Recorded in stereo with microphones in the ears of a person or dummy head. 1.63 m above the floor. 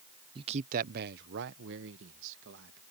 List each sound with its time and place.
0.3 s a man speaking: 25° right (ahead or behind); by 2.8 s 75° right (ahead or behind)